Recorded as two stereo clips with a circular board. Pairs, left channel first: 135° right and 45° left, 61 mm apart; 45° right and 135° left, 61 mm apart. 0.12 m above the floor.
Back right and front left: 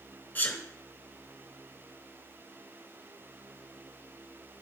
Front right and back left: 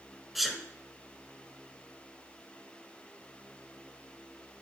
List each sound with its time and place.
0.3 s a sneeze: 135° right, 1.1 m